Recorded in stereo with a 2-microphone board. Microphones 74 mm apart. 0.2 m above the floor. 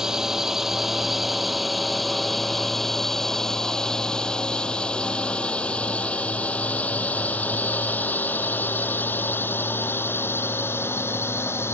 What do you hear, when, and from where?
0.0 s a drone: 10° right (ahead or behind); by 11.8 s 35° left (ahead or behind)